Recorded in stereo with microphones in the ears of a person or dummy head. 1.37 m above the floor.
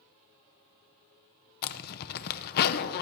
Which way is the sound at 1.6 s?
55° left (ahead or behind).